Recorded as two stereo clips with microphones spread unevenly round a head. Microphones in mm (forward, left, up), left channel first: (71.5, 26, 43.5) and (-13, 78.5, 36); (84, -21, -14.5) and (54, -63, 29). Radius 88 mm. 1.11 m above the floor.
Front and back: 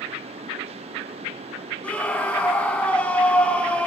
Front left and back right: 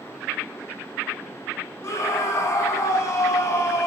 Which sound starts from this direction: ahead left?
A scream, at 1.8 s.